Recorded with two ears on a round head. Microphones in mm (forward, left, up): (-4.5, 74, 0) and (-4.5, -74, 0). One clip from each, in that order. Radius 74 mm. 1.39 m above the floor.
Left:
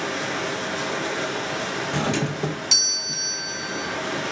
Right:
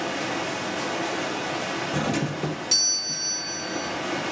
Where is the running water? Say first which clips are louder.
Left 1 dB; 40° left (ahead or behind), 4 m.